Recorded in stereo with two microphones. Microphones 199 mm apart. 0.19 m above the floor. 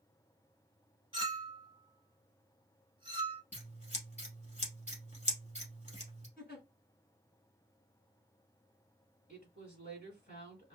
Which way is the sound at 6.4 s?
50° left (ahead or behind).